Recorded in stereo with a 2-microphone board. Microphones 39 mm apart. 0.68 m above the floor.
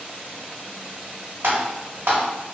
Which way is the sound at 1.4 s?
70° right (ahead or behind).